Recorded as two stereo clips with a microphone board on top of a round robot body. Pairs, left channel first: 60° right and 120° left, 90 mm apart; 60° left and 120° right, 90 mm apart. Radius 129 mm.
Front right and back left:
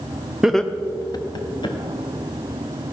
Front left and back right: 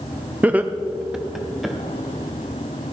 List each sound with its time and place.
0.4 s laughter: 170° right, 0.8 m; by 1.8 s 30° right, 1.8 m